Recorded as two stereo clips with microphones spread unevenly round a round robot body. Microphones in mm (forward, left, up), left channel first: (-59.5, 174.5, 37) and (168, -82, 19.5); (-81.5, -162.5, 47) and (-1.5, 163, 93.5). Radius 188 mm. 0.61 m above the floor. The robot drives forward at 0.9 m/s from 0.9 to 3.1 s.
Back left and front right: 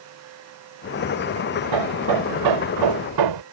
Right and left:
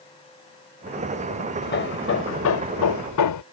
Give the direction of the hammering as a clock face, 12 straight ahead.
1 o'clock.